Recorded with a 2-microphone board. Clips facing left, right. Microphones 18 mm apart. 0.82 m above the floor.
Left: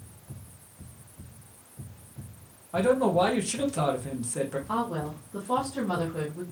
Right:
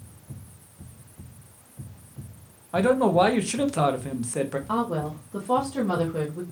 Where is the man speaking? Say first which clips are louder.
Right 3 dB; 35° right (ahead or behind), 0.6 m.